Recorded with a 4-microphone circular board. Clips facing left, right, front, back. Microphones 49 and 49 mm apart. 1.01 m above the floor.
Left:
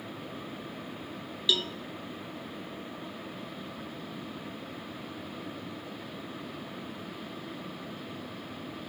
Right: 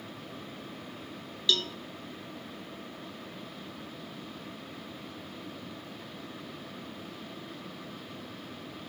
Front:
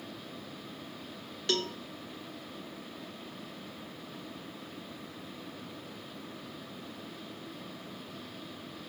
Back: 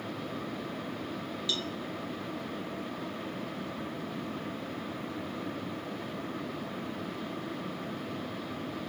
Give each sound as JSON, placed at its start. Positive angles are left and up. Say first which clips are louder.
{"t": 1.5, "sound": "a cowbell", "louder": "even, front 5 dB", "azimuth_deg": 10, "distance_m": 0.5}